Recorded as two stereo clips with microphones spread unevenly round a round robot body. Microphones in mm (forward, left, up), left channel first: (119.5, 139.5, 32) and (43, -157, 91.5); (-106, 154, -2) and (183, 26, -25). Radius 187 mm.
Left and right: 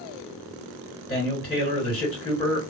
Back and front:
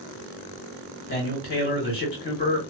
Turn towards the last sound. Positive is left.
turn(degrees=110)